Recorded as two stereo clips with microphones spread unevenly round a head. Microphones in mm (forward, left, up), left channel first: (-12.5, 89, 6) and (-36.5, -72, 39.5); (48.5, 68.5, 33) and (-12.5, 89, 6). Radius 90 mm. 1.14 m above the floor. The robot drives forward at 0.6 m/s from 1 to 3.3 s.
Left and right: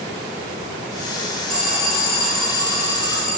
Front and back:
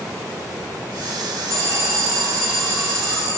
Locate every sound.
1.5 s an alarm: 175° left, 6.5 m